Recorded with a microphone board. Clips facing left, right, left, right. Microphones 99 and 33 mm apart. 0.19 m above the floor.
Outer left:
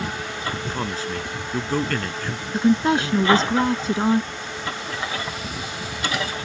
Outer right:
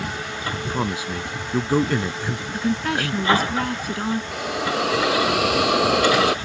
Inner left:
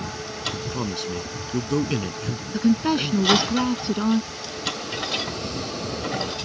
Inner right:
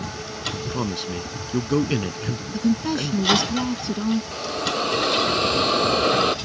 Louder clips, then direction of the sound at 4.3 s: Outer right 7 dB, inner right 5 dB; 80° right.